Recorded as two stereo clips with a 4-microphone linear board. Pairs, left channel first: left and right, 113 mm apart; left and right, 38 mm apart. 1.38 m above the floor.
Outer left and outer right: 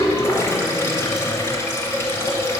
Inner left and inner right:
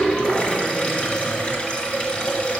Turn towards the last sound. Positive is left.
turn(degrees=25)  # may be behind; listen again after turning